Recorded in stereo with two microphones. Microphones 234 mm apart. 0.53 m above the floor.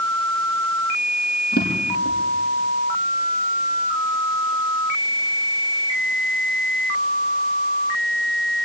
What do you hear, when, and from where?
1.5 s a drawer: 40° left (ahead or behind), 6 m